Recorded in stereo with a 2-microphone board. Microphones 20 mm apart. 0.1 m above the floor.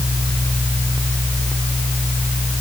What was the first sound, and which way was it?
Only background noise.